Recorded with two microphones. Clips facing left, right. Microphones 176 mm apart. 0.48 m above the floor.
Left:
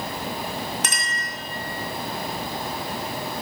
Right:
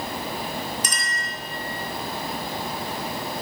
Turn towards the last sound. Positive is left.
turn(degrees=70)  # may be behind; listen again after turning